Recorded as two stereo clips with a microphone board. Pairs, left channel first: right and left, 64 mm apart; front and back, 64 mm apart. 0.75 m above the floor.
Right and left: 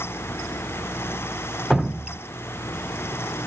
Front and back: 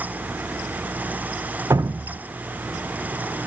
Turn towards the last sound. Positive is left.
turn(degrees=170)